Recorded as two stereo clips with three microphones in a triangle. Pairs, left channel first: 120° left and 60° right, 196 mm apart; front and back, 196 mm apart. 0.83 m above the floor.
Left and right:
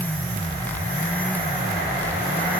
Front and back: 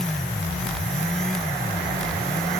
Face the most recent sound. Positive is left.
No sound to turn to.